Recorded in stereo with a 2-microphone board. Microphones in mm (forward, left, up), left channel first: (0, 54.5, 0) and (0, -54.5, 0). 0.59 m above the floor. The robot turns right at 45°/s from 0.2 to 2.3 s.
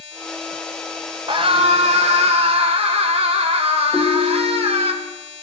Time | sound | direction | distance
1.3 | a scream | 125° right | 2 m
3.9 | a ringtone | 5° right (ahead or behind) | 1.1 m